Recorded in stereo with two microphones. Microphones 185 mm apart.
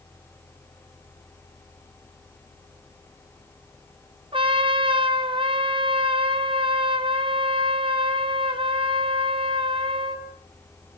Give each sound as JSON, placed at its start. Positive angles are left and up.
{"t": 4.3, "sound": "a trumpet", "side_deg": -30, "distance_m": 4.0}